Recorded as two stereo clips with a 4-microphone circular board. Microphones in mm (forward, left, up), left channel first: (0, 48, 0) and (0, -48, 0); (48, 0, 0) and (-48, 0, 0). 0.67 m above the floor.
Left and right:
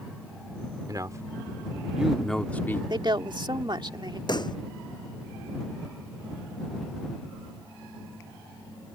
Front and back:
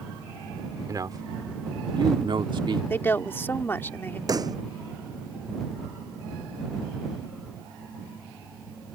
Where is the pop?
130° left.